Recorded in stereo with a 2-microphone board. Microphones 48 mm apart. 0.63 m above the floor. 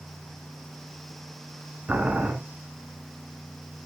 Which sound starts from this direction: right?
Boiling, at 1.9 s.